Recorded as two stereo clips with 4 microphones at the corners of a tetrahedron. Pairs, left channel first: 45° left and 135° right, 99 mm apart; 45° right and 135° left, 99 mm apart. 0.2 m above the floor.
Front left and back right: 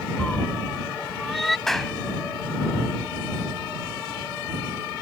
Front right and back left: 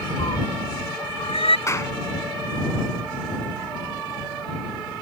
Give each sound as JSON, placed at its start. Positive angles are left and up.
{"t": 0.2, "sound": "a cat meowing", "azimuth_deg": -30}
{"t": 1.7, "sound": "a clap", "azimuth_deg": -40}